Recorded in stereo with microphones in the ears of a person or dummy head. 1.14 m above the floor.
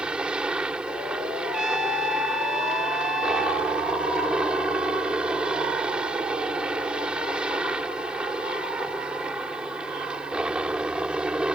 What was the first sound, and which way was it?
A helicopter, 5° right (ahead or behind).